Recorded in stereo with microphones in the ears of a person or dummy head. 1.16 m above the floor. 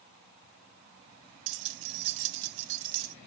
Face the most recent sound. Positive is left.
turn(degrees=-70)  # may be behind; listen again after turning